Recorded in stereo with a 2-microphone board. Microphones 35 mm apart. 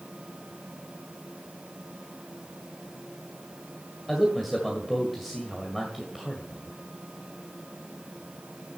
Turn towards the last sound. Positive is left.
turn(degrees=5)  # may be behind; listen again after turning